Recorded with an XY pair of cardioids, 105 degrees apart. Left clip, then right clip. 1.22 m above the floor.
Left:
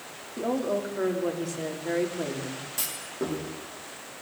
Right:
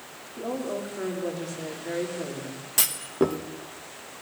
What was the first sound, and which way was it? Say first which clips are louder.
A woman speaking: left 3 dB; 35° left.